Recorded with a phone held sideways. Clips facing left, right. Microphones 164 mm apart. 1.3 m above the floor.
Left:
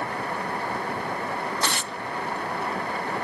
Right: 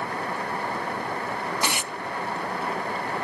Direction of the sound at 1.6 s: 15° right (ahead or behind).